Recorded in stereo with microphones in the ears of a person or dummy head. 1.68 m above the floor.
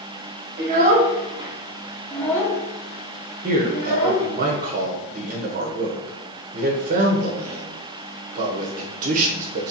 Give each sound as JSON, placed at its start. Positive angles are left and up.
{"t": 0.6, "sound": "a child speaking", "side_deg": -45, "distance_m": 1.1}
{"t": 3.4, "sound": "a man speaking", "side_deg": -40, "distance_m": 1.0}